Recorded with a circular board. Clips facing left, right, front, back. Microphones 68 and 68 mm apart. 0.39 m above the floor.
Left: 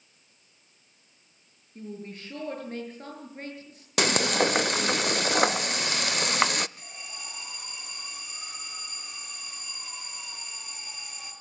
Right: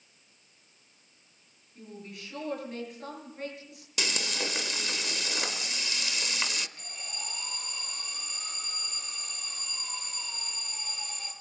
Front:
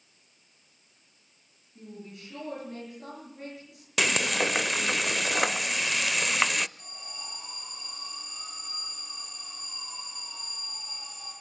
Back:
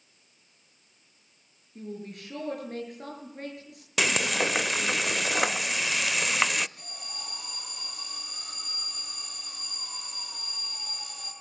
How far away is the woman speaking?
About 7.5 m.